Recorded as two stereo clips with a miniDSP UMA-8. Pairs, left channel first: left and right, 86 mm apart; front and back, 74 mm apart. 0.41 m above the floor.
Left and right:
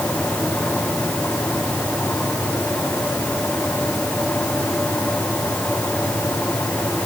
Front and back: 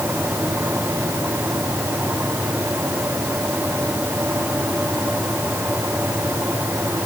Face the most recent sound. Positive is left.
No sound to turn to.